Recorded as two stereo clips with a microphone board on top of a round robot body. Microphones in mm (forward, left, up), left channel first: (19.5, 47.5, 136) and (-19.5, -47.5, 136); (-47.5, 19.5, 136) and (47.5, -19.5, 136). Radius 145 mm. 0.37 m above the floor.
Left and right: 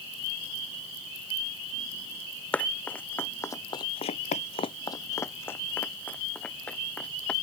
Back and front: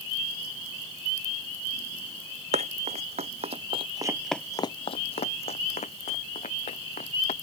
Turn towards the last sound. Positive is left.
turn(degrees=150)